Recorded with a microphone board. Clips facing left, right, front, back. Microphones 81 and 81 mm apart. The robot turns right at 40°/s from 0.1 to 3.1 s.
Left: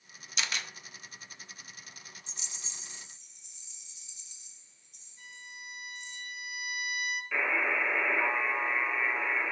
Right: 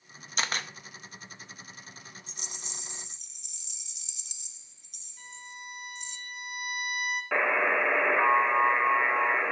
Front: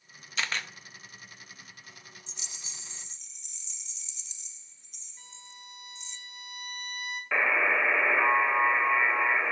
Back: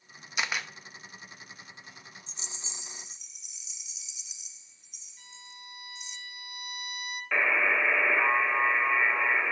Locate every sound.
0.4 s a camera shutter: 115° right, 0.6 m; by 0.7 s 100° right, 0.6 m
2.3 s a rattle: 130° right, 0.6 m; by 6.2 s 100° right, 0.6 m
5.2 s a violin: 60° right, 1.8 m
7.3 s a buzzer: 80° right, 1.1 m